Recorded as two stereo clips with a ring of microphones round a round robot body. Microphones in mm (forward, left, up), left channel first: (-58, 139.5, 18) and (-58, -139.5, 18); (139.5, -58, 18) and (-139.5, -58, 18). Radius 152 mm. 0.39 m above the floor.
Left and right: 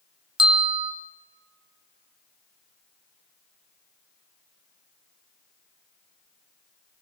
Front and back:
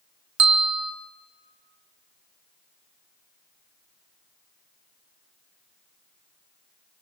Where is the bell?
160° right, 1.5 m.